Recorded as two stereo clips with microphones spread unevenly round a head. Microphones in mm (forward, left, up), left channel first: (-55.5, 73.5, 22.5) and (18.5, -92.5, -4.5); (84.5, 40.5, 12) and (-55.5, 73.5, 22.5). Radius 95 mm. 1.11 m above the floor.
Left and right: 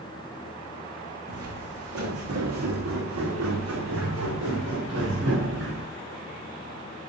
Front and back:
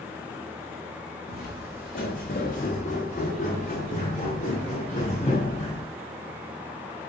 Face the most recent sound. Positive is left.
turn(degrees=-85)